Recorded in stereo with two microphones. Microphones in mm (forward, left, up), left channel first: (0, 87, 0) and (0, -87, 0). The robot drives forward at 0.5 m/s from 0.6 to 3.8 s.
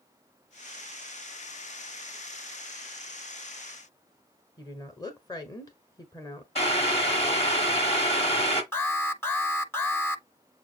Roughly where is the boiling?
Left.